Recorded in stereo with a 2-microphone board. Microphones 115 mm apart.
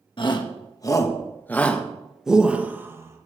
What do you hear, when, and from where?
0.2 s a shout: 45° left (ahead or behind), 1.6 m; by 3.3 s 25° right (ahead or behind), 1.5 m